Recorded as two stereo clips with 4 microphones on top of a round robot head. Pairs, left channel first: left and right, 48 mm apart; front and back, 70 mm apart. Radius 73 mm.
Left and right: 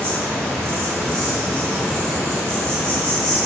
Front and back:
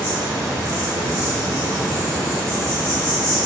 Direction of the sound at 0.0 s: 150° left.